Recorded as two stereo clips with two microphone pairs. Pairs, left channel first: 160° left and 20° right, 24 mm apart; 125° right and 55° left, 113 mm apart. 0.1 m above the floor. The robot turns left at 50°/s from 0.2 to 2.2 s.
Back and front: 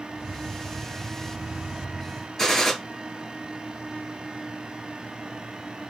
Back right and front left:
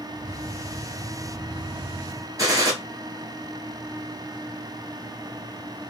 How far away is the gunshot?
About 1.2 m.